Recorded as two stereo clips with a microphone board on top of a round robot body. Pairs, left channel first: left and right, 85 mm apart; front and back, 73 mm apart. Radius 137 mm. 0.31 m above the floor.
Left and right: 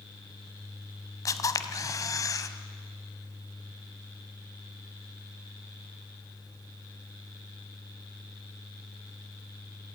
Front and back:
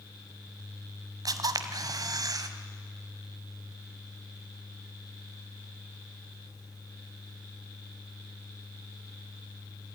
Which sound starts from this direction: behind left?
A camera shutter, at 1.2 s.